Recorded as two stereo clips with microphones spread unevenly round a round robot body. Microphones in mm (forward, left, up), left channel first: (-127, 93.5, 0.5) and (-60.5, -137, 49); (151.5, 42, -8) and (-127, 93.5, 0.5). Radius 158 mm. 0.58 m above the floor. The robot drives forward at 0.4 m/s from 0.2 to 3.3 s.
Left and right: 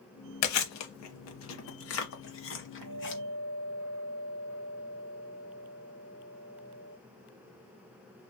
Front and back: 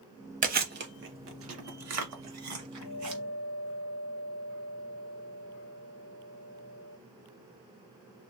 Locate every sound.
0.4 s chewing: 105° left, 0.9 m; by 3.2 s 150° left, 1.6 m
2.8 s a guitar: 55° right, 0.6 m; by 7.0 s 75° right, 0.6 m